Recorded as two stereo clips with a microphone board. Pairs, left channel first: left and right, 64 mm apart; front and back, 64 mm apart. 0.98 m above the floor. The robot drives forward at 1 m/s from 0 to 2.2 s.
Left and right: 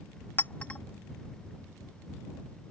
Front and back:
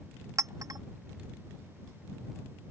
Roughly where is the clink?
Behind left.